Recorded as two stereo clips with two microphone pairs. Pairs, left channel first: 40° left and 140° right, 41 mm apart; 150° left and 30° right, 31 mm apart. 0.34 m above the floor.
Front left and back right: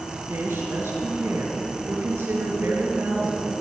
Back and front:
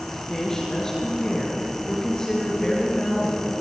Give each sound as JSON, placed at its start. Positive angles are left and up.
{"t": 0.1, "sound": "a woman speaking", "azimuth_deg": -135, "distance_m": 5.5}